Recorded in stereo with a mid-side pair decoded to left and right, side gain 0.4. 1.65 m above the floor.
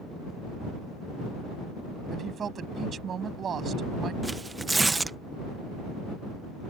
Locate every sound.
2.1 s a woman speaking: 55° right
4.2 s tearing paper: 25° right